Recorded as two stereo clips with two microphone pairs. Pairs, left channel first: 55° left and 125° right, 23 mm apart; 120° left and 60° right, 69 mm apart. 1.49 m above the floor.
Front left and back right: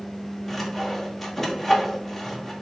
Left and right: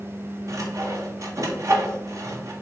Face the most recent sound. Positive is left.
turn(degrees=-25)